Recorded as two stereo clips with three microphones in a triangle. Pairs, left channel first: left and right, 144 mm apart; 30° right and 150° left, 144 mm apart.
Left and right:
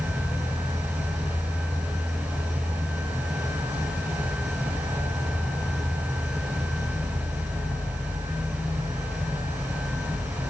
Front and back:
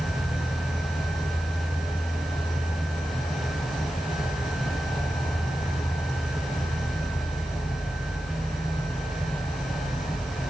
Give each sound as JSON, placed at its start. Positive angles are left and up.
{"t": 0.0, "sound": "an insect", "azimuth_deg": -25, "distance_m": 2.0}